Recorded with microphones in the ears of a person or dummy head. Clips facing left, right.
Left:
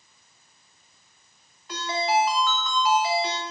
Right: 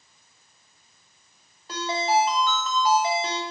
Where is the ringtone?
30° right (ahead or behind), 1.2 m.